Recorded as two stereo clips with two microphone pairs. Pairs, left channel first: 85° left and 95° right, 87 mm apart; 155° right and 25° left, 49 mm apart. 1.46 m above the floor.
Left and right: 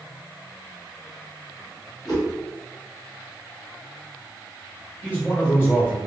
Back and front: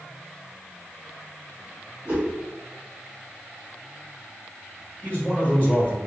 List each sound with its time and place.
2.0 s a whoosh: 70° left, 1.2 m
5.0 s a man speaking: 145° left, 1.5 m